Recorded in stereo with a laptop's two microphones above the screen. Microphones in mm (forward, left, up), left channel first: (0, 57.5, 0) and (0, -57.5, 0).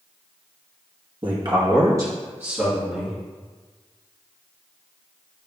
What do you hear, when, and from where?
1.2 s a man speaking: 50° right (ahead or behind), 1.0 m; by 3.2 s 5° right (ahead or behind), 1.8 m